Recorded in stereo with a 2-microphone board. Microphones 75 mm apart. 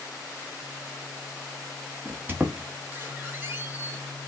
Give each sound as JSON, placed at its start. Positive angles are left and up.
{"t": 2.0, "sound": "a squeak", "side_deg": -25, "distance_m": 0.9}